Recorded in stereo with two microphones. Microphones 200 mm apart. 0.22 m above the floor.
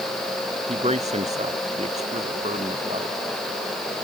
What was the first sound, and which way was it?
A man speaking, 30° right (ahead or behind).